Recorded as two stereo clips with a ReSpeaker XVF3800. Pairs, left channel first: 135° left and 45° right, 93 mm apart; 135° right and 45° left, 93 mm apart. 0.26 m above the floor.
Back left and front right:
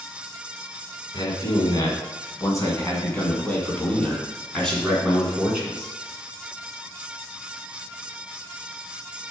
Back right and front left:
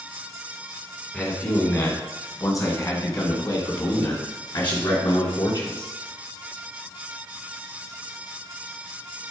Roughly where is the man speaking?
Behind.